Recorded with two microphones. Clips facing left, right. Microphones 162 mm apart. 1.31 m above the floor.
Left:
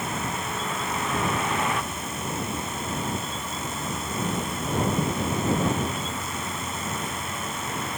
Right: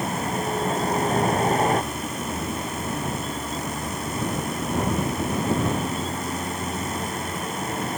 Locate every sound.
0.0 s a vehicle: 40° right (ahead or behind)